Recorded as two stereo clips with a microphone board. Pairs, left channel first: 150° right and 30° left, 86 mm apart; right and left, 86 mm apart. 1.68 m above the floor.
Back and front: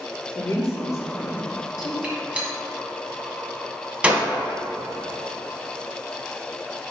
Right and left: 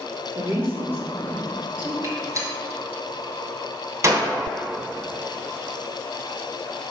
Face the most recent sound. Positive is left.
turn(degrees=95)